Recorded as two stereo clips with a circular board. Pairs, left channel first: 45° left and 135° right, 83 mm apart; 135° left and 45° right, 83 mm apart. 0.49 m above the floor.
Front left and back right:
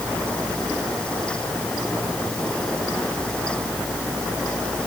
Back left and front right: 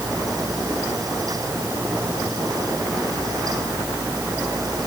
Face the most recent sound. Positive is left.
No sound to turn to.